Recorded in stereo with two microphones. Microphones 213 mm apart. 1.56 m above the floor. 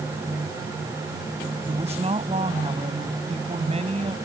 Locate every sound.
1.7 s a woman speaking: 30° right (ahead or behind)